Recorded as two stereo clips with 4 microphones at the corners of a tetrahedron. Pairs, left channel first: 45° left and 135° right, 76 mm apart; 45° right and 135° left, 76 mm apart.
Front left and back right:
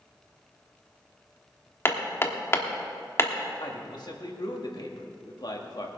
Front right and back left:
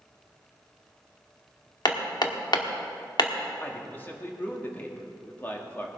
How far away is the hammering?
About 1.0 m.